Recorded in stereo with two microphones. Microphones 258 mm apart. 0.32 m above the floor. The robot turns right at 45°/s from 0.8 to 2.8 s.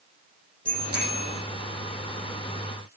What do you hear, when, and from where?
0.7 s a bicycle bell: 35° right (ahead or behind), 8.5 m; by 1.3 s 60° right (ahead or behind), 8.5 m